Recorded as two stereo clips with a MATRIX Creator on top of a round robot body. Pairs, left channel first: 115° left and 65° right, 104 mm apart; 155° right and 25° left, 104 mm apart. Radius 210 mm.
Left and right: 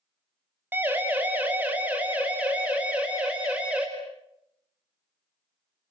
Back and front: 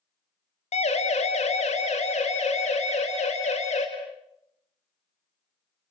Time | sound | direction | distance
0.7 | a siren | 140° right | 3 m